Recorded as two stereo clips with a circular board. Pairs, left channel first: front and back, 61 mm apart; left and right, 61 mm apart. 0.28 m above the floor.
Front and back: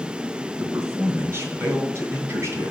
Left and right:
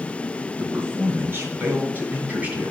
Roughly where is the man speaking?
Behind right.